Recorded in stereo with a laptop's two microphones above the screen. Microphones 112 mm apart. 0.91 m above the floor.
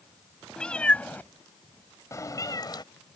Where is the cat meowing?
5° left (ahead or behind); by 2.8 s 40° left (ahead or behind).